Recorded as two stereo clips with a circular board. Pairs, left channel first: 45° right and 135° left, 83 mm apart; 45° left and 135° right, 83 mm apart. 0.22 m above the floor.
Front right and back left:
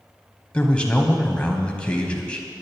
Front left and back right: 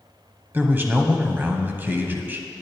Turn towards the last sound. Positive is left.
turn(degrees=-105)